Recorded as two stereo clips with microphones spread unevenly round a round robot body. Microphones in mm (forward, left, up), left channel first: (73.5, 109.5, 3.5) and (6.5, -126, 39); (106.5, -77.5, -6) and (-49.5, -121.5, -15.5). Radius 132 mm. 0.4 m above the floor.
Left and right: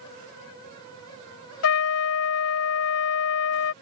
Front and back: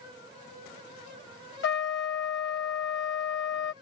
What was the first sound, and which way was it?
A trumpet, 55° left.